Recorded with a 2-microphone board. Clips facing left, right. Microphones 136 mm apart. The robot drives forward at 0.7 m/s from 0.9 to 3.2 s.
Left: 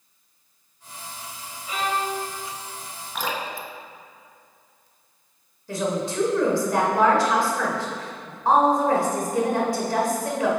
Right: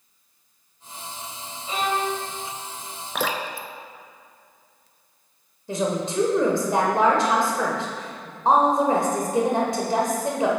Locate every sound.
1.7 s a violin: 30° right (ahead or behind), 1.1 m; by 2.2 s 25° right (ahead or behind), 1.4 m
3.1 s dripping: 75° right (ahead or behind), 0.6 m
5.7 s a woman speaking: 25° right (ahead or behind), 1.0 m